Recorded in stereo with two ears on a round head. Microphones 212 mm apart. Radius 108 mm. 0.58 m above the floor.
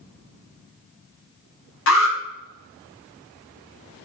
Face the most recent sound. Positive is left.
turn(degrees=55)  # may be behind; listen again after turning